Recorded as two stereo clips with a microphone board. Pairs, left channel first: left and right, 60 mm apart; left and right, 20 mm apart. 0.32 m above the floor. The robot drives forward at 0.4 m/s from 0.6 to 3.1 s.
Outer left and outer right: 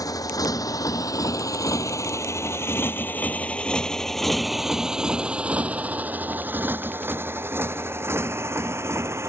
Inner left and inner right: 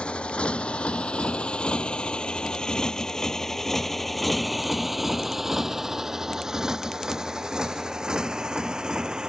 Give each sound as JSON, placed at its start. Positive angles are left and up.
{"t": 0.0, "sound": "a motorcycle", "side_deg": 85}